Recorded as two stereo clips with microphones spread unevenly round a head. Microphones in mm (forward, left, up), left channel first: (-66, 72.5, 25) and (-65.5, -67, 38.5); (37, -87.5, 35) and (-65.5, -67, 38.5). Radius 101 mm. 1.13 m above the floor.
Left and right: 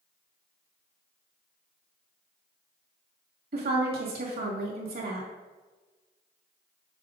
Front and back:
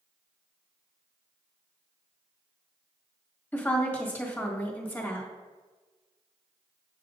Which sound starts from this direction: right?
A woman speaking, at 3.5 s.